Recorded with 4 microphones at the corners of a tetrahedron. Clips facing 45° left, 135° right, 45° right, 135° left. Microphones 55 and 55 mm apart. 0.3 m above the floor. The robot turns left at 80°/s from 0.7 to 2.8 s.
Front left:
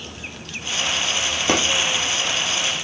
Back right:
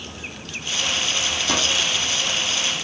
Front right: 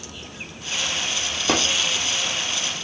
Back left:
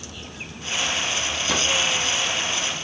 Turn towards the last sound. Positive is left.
turn(degrees=-100)